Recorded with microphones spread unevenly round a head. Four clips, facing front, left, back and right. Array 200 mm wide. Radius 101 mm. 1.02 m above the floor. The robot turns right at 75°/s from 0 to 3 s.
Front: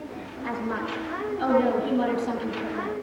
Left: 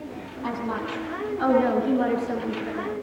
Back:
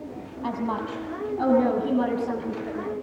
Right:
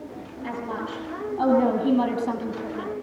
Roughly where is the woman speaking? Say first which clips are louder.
Left 2 dB, back 2 dB; behind.